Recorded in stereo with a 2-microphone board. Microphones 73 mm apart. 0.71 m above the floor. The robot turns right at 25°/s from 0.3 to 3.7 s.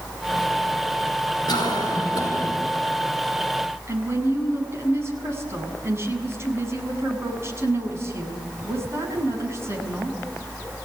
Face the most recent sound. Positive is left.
turn(degrees=-40)  # may be behind; listen again after turning